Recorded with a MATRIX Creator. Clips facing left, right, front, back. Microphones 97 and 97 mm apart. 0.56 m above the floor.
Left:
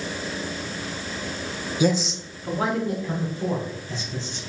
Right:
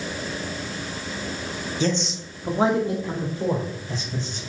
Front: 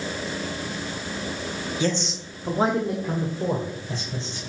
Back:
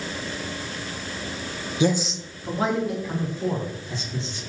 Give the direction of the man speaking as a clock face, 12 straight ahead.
7 o'clock.